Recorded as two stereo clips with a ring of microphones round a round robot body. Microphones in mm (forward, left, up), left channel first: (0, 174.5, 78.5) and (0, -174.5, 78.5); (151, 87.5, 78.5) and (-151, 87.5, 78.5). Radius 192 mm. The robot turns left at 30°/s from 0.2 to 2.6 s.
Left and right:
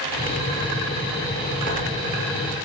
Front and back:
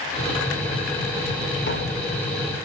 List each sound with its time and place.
1.7 s tapping: 35° left, 1.9 m; by 2.1 s 20° left, 1.9 m